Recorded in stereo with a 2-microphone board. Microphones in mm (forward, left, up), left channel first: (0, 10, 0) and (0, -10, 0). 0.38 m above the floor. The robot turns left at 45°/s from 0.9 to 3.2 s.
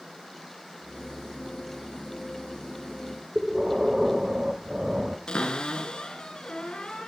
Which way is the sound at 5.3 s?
40° left (ahead or behind).